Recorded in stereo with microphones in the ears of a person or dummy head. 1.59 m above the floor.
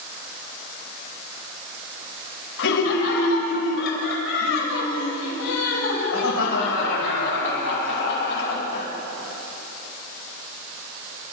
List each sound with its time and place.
2.6 s laughter: 80° left, 7.5 m